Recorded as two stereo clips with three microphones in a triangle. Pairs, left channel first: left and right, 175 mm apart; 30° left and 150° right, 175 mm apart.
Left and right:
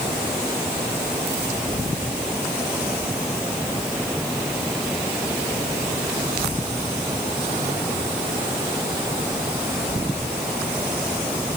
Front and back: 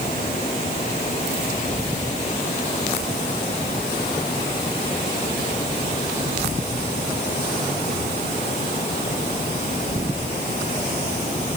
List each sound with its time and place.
Only background noise.